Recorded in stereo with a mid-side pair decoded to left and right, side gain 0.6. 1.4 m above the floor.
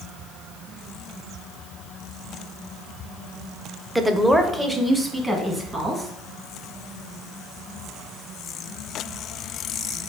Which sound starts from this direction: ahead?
A woman speaking, at 4.0 s.